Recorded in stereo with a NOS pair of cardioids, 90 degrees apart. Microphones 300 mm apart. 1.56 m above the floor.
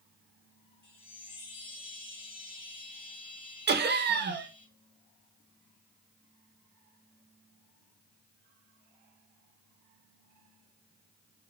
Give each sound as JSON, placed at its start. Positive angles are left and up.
{"t": 0.8, "sound": "a chime", "azimuth_deg": 20, "distance_m": 1.3}
{"t": 3.7, "sound": "laughter", "azimuth_deg": -35, "distance_m": 0.8}